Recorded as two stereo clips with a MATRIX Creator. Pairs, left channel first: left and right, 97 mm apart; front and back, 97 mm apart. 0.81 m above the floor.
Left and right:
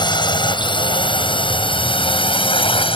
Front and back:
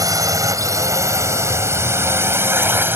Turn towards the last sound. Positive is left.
turn(degrees=110)